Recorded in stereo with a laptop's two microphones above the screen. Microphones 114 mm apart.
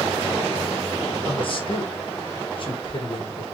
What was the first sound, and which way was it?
A man speaking, 50° left (ahead or behind).